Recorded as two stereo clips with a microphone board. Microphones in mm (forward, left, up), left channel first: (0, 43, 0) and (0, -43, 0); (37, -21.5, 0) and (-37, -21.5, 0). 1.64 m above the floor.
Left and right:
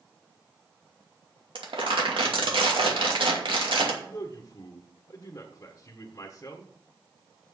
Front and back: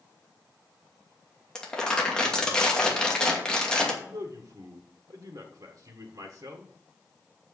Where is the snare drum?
No snare drum in this recording.